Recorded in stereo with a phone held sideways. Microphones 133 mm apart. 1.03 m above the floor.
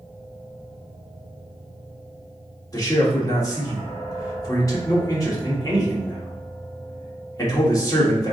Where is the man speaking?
25° left (ahead or behind), 1.6 m.